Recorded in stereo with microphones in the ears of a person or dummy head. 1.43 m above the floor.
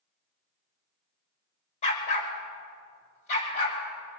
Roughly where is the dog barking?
Left.